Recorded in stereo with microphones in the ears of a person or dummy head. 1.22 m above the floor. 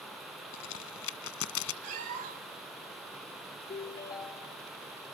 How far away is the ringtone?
About 0.7 m.